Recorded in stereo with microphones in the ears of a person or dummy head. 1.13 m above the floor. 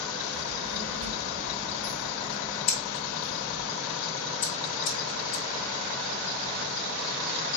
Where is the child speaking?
75° right (ahead or behind), 1.4 m; by 3.7 s 15° left (ahead or behind), 1.7 m.